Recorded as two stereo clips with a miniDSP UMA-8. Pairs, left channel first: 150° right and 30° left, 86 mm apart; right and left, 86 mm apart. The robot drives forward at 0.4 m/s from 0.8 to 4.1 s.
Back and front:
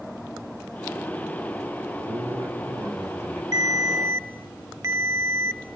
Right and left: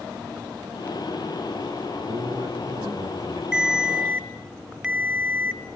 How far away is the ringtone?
About 1.1 m.